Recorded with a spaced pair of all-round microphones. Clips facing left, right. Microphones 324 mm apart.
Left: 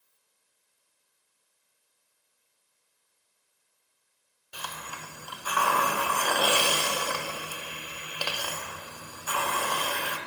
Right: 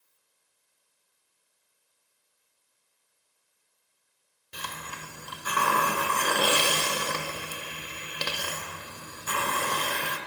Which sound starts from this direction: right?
A hiss, at 4.5 s.